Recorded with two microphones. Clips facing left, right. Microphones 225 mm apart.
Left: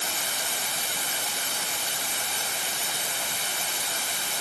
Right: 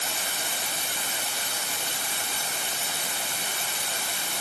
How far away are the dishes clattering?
I don't hear dishes clattering.